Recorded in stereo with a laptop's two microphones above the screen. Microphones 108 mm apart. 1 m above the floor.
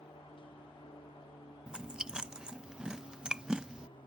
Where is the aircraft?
55° left (ahead or behind).